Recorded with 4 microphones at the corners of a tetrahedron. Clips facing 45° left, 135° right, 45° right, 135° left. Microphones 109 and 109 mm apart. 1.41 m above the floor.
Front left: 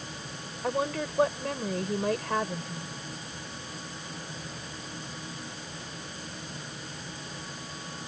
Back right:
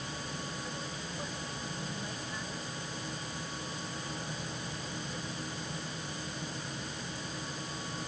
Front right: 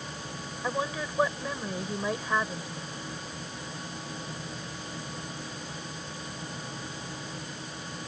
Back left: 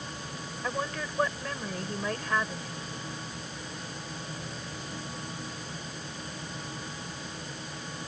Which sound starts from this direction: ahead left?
A woman speaking, at 0.6 s.